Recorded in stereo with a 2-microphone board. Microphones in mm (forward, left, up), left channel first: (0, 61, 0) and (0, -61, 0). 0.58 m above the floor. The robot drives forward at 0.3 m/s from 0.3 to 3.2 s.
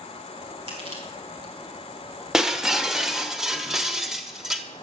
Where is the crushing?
50° right (ahead or behind), 4 m; by 1.5 s 45° right (ahead or behind), 4 m.